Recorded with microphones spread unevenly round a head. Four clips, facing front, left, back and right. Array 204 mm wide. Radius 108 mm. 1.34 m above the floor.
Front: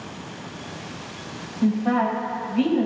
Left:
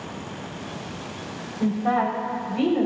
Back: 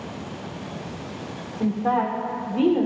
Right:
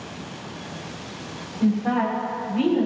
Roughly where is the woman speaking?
Behind.